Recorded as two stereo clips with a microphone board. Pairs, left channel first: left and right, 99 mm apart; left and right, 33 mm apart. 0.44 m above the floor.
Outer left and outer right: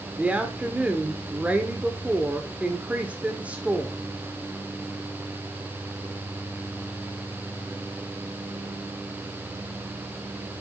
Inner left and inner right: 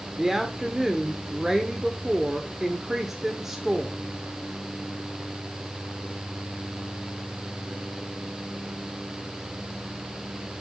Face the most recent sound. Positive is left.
turn(degrees=-15)  # may be behind; listen again after turning